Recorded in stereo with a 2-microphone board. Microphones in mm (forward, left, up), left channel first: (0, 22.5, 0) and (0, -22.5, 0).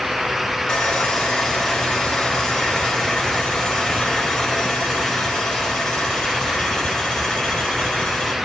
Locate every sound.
0.7 s sawing: 15° left (ahead or behind), 6 m